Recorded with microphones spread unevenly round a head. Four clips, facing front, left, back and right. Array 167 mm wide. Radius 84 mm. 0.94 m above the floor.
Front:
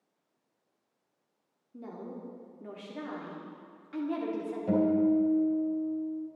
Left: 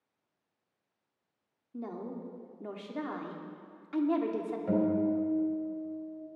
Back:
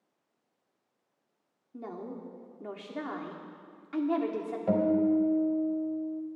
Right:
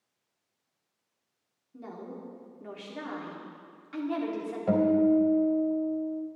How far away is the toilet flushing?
I don't hear a toilet flushing.